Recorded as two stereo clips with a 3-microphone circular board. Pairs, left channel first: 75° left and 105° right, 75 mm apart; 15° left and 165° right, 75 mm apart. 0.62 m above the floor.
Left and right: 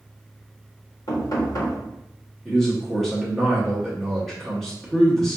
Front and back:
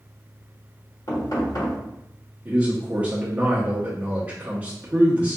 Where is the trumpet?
No trumpet in this recording.